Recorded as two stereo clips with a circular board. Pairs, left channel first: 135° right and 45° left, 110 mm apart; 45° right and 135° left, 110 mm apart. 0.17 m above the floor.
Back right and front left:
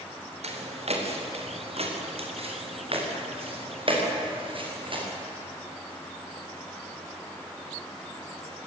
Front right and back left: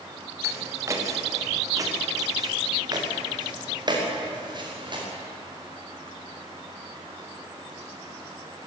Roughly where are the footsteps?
Left.